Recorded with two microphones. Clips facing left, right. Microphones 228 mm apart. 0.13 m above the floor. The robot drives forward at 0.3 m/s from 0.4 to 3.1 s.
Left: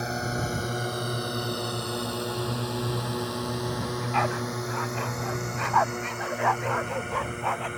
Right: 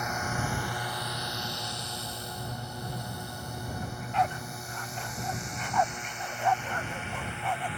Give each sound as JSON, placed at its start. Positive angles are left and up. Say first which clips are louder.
{"t": 0.0, "sound": "a drone", "louder": "left 4 dB", "side_deg": 30}
{"t": 3.8, "sound": "a dog barking", "louder": "left 4 dB", "side_deg": 80}